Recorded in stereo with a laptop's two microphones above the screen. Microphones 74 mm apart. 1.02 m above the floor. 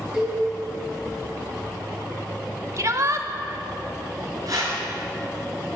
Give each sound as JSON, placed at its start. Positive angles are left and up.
{"t": 0.1, "sound": "a cowbell", "side_deg": -15, "distance_m": 4.5}
{"t": 2.8, "sound": "a shout", "side_deg": -45, "distance_m": 1.4}
{"t": 4.5, "sound": "a whoosh", "side_deg": -50, "distance_m": 4.5}